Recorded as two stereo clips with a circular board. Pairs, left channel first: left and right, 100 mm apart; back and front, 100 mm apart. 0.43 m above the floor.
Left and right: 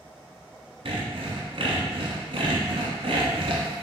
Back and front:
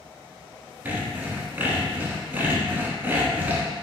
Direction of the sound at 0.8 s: 70° right.